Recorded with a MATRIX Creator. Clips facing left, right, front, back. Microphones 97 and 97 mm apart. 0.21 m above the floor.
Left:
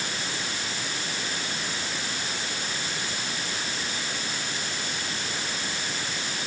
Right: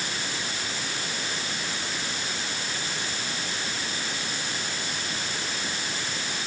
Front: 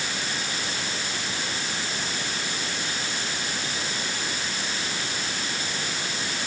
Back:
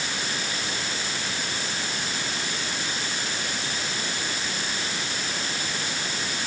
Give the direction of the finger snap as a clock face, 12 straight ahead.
I don't hear a finger snap.